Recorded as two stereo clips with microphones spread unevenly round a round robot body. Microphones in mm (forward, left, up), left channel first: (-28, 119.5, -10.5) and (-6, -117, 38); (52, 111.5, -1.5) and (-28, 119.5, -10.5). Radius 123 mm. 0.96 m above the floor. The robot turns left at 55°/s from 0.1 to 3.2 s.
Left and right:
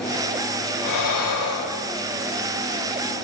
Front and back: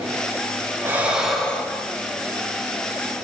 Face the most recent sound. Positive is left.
turn(degrees=-25)